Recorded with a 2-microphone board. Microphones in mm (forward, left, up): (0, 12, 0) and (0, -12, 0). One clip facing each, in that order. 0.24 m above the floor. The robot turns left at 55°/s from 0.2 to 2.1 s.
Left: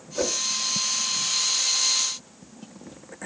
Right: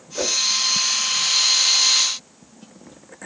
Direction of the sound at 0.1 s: 20° right (ahead or behind).